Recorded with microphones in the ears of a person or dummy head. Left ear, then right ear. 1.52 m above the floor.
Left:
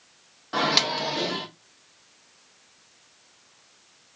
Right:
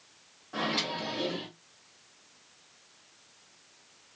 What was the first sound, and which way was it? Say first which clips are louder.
A microwave: left 9 dB; 60° left (ahead or behind).